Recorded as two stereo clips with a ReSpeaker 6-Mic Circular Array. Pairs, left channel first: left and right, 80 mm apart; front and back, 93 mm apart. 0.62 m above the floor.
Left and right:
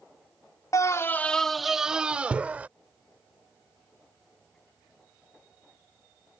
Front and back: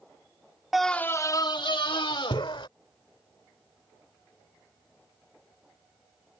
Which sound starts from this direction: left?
A scream, at 0.7 s.